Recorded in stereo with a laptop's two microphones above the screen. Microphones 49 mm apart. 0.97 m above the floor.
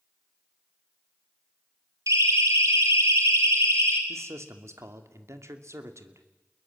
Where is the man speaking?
75° right (ahead or behind), 2.5 m.